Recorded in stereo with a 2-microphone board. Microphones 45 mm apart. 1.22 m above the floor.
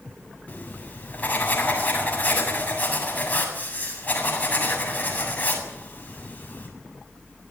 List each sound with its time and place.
0.5 s writing: 35° left (ahead or behind), 7.5 m